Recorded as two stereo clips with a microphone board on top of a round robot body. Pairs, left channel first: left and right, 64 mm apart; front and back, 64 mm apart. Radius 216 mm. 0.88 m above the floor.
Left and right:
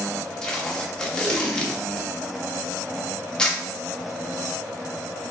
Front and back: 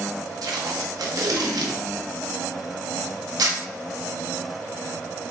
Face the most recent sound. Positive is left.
turn(degrees=170)